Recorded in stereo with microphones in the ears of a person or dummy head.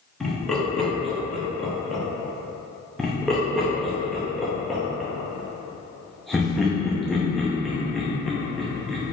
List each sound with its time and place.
0.2 s laughter: 10° left (ahead or behind), 1.1 m
3.0 s laughter: 5° left (ahead or behind), 0.7 m